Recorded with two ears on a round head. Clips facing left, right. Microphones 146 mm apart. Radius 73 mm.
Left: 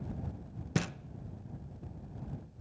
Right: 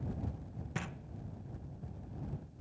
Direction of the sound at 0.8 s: 45° left (ahead or behind).